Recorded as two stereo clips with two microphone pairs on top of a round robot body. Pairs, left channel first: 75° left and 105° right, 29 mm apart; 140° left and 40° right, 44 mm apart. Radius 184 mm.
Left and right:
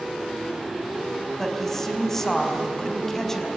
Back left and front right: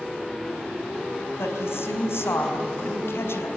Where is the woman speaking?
155° left, 4 m.